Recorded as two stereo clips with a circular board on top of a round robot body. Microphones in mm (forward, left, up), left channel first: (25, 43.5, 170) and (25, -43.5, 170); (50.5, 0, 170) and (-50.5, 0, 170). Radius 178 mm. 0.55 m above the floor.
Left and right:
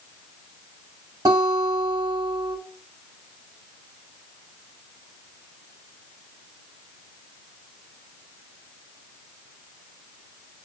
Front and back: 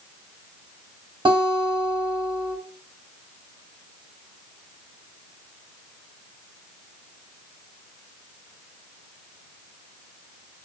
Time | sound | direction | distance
1.2 | a guitar | 135° right | 1.0 m